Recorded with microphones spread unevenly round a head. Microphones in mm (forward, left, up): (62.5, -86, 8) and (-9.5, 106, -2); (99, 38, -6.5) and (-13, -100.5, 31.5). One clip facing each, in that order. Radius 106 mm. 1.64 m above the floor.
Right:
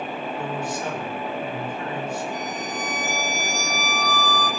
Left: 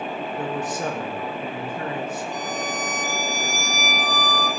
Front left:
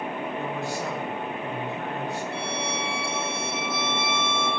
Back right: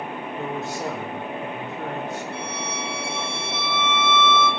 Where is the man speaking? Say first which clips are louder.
Left 3 dB, back right 1 dB; 160° left, 1.5 m.